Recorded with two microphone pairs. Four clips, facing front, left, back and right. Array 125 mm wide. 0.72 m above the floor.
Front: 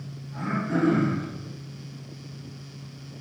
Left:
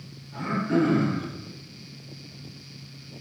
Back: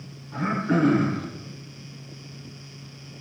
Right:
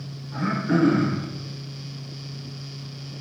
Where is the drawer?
No drawer in this recording.